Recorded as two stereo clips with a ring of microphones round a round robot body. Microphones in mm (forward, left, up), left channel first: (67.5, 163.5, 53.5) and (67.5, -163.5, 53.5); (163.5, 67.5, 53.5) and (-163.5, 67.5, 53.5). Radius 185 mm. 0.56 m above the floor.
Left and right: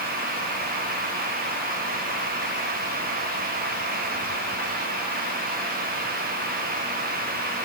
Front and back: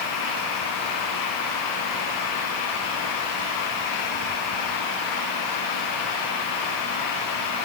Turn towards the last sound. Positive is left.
No sound to turn to.